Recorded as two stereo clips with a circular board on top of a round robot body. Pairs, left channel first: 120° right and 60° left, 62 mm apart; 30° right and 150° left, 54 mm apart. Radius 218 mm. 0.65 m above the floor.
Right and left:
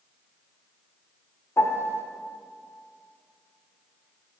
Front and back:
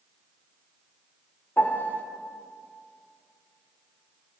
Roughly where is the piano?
Right.